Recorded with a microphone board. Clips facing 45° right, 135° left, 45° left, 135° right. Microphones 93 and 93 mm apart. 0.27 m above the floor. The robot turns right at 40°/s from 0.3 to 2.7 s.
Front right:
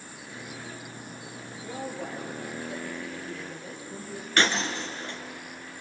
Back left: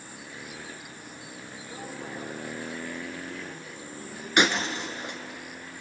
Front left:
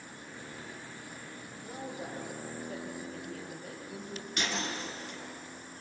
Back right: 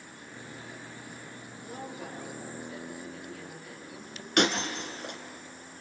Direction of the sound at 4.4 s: 150° right.